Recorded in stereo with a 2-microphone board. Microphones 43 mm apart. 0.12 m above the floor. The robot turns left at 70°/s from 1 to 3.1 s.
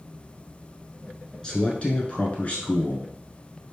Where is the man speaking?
150° left, 1.3 m; by 3.1 s 35° left, 1.3 m.